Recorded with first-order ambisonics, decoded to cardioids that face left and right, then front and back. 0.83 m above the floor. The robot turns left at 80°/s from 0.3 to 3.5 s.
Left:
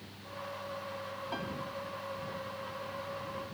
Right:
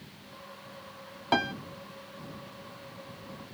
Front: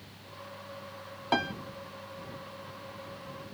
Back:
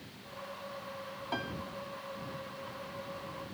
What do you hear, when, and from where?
1.3 s a piano: 50° right; by 1.5 s 70° right